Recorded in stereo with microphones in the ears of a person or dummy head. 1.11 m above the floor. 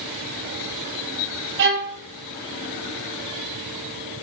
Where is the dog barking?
No dog barking in this recording.